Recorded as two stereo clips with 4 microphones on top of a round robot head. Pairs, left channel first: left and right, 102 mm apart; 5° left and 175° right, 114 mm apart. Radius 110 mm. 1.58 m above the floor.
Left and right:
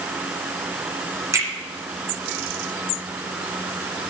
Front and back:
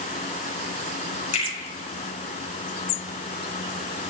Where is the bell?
I don't hear a bell.